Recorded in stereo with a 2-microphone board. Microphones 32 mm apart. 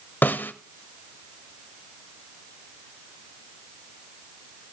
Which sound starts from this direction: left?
A snare drum, at 0.2 s.